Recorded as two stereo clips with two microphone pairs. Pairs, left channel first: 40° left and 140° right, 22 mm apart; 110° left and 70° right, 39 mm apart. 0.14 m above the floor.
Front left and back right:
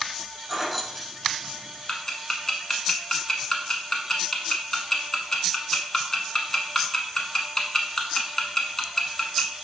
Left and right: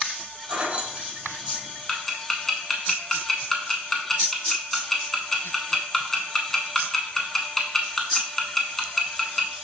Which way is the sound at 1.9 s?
45° left.